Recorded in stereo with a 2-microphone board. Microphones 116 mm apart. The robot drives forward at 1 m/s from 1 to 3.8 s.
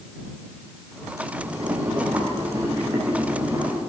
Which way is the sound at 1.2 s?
30° right (ahead or behind).